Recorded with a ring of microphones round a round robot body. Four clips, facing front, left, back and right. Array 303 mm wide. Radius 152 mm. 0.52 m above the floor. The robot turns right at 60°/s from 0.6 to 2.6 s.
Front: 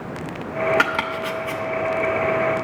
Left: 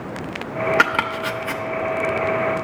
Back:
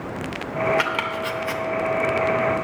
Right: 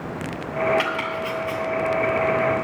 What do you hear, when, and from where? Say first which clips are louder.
0.8 s chopping: left 5 dB, front 2 dB; 65° left, 0.9 m; by 1.6 s 115° left, 0.9 m